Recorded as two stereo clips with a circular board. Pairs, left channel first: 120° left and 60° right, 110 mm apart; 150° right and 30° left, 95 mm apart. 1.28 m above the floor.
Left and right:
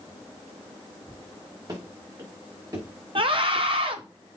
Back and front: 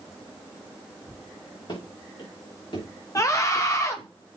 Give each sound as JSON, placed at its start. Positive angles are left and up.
{"t": 1.7, "sound": "running footsteps", "azimuth_deg": -115, "distance_m": 3.5}
{"t": 3.1, "sound": "a scream", "azimuth_deg": -95, "distance_m": 1.1}